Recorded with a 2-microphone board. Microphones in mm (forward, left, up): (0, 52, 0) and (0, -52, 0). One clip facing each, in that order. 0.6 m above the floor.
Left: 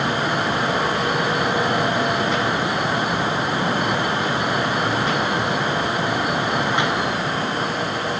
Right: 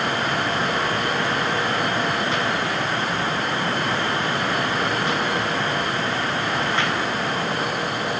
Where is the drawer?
No drawer in this recording.